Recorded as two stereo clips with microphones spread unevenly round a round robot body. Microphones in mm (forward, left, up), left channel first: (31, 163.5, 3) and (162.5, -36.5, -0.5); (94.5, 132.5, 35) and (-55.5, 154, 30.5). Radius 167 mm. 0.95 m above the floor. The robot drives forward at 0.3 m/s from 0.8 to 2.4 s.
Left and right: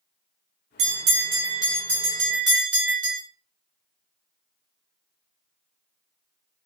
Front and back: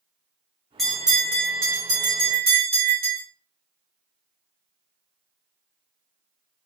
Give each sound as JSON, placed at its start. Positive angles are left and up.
{"t": 0.8, "sound": "a bell", "azimuth_deg": -100, "distance_m": 0.7}